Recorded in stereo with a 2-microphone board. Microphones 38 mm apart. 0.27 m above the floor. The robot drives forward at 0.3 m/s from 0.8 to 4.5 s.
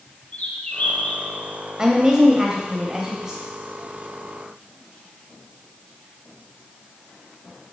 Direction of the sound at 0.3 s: 35° left (ahead or behind).